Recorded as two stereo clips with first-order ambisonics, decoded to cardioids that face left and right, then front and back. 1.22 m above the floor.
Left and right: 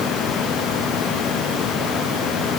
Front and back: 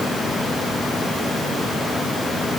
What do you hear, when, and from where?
Only background noise.